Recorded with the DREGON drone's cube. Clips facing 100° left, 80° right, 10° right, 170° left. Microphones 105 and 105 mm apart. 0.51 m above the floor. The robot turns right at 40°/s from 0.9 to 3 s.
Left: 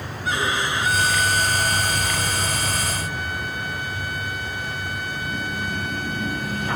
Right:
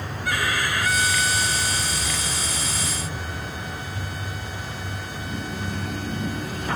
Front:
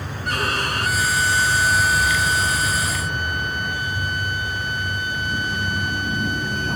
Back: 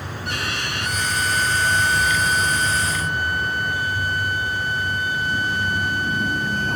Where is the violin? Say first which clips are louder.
Left 2 dB, front 5 dB; 35° left; by 6.8 s 120° left.